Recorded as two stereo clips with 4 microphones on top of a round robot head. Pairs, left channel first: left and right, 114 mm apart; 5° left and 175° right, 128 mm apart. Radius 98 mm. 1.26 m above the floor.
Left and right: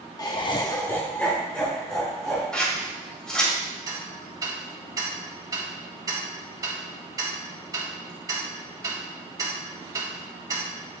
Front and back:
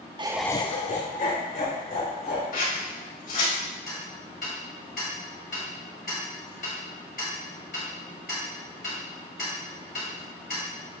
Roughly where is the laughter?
Behind left.